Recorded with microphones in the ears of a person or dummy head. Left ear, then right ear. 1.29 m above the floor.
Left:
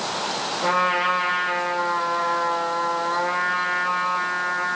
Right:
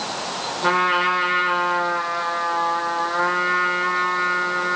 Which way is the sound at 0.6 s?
40° right (ahead or behind).